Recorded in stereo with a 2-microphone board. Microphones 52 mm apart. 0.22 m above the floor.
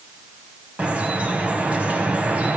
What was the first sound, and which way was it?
Dripping, 25° right (ahead or behind).